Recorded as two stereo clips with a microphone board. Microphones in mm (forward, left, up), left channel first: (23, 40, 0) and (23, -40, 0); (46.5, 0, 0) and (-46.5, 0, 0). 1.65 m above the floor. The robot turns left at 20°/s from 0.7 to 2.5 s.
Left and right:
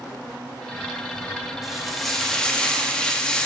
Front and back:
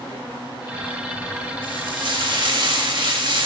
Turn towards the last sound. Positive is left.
turn(degrees=170)